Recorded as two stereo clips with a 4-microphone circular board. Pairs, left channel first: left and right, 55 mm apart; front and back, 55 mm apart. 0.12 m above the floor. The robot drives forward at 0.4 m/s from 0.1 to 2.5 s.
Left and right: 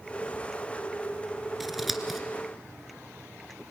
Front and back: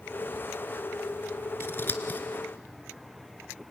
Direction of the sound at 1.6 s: 5° right.